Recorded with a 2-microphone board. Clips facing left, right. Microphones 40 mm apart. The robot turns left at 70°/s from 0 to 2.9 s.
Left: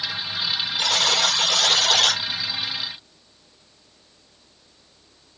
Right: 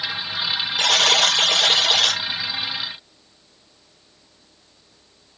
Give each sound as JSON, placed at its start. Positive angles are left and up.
{"t": 0.8, "sound": "a buzzer", "azimuth_deg": -85, "distance_m": 1.5}